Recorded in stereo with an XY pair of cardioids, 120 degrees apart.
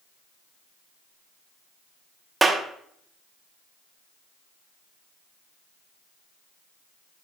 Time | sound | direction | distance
2.4 | a clap | 20° right | 0.9 m